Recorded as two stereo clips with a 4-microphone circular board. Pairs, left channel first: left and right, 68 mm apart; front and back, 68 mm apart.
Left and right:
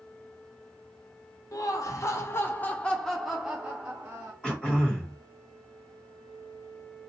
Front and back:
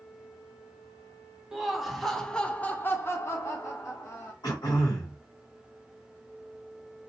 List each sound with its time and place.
1.5 s laughter: 95° left, 1.0 m; by 4.3 s 35° right, 1.0 m
4.4 s throat clearing: 15° left, 2 m